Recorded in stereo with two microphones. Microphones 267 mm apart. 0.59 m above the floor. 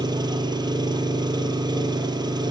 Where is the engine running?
15° right (ahead or behind), 3 m.